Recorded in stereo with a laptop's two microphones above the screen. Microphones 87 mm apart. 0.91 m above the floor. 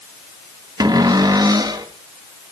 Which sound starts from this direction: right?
A cupboard door, at 0.8 s.